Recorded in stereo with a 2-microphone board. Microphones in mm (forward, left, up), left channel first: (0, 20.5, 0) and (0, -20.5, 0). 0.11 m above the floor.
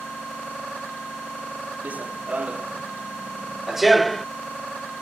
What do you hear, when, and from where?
1.8 s running footsteps: 40° right (ahead or behind); by 4.2 s 10° left (ahead or behind)